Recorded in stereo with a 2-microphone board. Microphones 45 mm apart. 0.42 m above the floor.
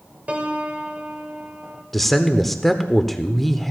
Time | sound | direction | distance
0.3 | a piano | 30° right (ahead or behind) | 1.2 m
1.9 | a man speaking | centre (ahead or behind) | 0.8 m